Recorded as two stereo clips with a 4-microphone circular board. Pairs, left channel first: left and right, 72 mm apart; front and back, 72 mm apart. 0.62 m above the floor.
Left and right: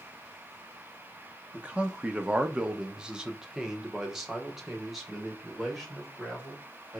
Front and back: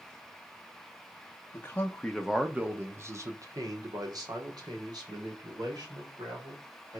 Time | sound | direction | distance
1.5 | a man speaking | 30° right | 0.7 m